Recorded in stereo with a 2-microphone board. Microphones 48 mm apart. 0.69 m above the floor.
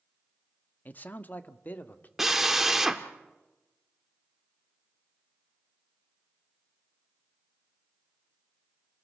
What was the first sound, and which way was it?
A man speaking, 40° left (ahead or behind).